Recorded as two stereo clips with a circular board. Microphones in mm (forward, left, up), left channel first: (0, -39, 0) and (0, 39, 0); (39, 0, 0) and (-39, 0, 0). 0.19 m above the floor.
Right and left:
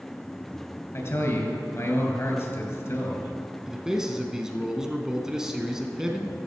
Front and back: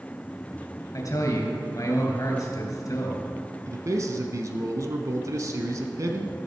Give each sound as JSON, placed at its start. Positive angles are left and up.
{"t": 0.9, "sound": "a man speaking", "azimuth_deg": -35, "distance_m": 3.0}
{"t": 3.7, "sound": "a man speaking", "azimuth_deg": 170, "distance_m": 1.4}